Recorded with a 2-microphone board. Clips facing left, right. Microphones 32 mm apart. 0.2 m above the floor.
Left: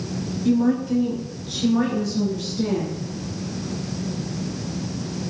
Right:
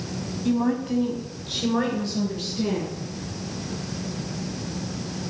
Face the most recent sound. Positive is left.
turn(degrees=-55)  # may be behind; listen again after turning